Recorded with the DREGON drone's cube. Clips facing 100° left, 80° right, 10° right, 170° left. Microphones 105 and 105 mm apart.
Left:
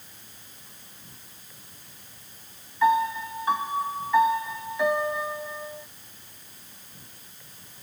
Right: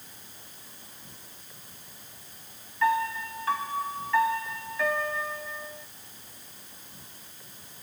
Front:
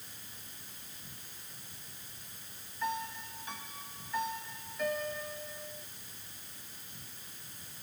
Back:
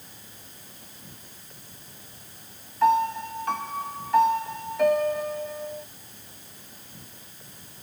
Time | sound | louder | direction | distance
0.0 | an insect | right 1 dB, back 4 dB | 155° right | ?
2.8 | a piano | left 4 dB, back 16 dB | 170° left | ?